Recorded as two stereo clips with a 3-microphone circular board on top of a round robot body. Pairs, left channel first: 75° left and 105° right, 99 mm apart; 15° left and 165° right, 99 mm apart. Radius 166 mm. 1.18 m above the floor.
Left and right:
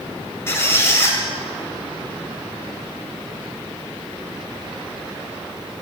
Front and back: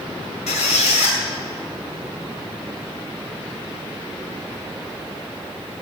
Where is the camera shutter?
I don't hear a camera shutter.